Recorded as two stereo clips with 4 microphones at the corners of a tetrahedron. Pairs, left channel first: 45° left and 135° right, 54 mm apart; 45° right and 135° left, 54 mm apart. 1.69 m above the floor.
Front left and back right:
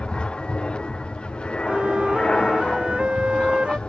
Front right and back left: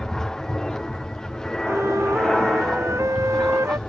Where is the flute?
155° left.